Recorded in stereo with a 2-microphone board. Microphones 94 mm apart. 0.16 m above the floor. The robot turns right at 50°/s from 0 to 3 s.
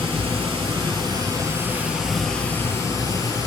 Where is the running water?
110° right, 0.8 m; by 3.5 s 40° left, 0.8 m.